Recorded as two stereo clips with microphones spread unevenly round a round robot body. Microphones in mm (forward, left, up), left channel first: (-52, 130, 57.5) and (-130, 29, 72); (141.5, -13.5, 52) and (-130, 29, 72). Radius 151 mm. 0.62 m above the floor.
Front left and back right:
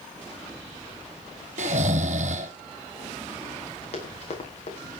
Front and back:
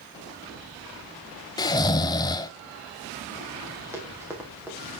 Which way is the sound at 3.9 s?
90° left.